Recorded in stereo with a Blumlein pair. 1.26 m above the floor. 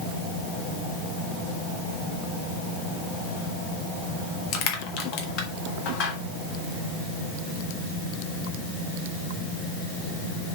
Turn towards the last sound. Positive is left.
turn(degrees=40)